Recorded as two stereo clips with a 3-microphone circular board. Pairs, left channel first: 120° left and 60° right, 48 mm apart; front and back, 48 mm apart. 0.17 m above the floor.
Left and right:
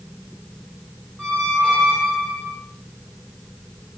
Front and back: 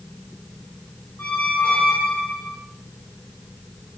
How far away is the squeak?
About 1.0 m.